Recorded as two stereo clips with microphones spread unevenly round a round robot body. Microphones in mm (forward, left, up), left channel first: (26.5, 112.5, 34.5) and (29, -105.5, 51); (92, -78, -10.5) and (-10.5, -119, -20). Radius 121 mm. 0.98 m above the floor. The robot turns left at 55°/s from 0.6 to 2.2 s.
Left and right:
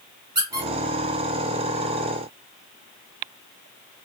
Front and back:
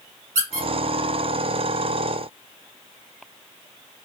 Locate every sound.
0.3 s a squeak: 160° right, 1.8 m; by 0.7 s 165° right, 1.8 m